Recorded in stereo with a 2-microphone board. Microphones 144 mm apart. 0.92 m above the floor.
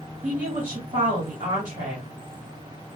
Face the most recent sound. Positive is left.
turn(degrees=-70)  # may be behind; listen again after turning